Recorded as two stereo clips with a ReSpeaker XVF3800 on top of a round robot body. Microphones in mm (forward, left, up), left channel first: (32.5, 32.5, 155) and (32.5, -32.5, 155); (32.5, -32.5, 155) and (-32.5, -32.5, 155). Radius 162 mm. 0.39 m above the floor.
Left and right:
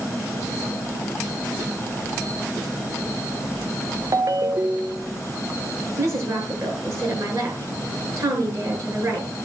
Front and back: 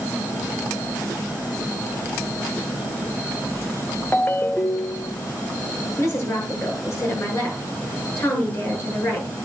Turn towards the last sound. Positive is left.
turn(degrees=-50)